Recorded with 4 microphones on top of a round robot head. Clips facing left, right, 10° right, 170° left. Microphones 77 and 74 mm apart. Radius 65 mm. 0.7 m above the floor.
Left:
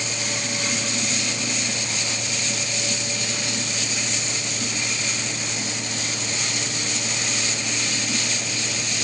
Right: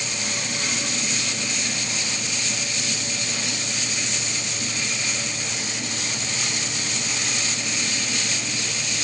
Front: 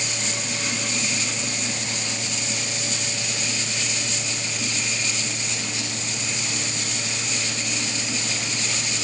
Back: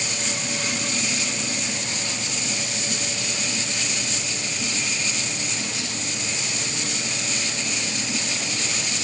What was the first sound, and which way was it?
Only background noise.